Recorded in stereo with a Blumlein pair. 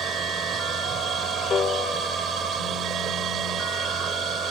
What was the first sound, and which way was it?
A machine running, 25° right.